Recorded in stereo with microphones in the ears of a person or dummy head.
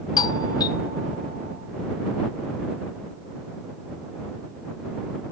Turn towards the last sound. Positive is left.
turn(degrees=20)  # may be behind; listen again after turning